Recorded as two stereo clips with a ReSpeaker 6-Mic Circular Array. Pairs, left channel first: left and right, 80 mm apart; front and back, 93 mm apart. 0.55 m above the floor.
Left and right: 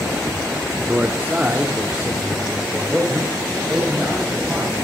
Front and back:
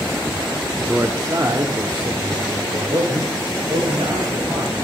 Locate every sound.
0.8 s a man speaking: 125° right, 0.8 m; by 4.7 s 175° right, 3 m